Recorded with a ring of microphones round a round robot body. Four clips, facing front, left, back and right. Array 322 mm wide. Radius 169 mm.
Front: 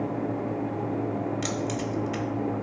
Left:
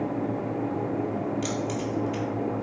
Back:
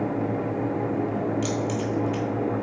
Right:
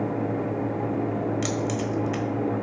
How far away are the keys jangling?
About 1.5 m.